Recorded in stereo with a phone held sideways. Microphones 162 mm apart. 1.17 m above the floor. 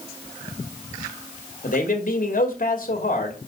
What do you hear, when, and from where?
1.6 s a man speaking: 55° left (ahead or behind), 2.0 m